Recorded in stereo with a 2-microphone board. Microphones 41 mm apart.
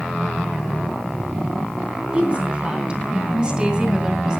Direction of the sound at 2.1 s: 25° right (ahead or behind).